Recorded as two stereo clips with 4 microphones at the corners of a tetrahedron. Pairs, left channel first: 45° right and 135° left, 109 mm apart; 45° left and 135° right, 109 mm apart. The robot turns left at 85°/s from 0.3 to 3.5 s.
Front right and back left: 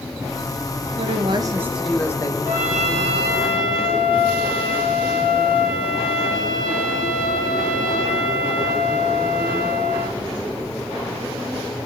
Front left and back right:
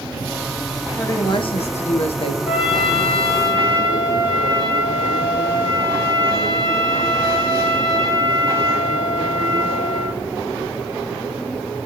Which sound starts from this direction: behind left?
A woman speaking, at 1.0 s.